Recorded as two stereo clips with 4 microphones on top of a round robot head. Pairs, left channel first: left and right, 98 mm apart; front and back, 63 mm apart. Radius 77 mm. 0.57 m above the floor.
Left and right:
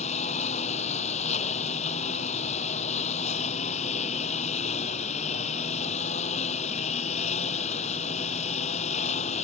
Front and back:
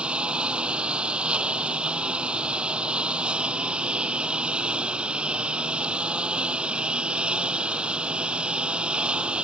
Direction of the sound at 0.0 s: 110° left.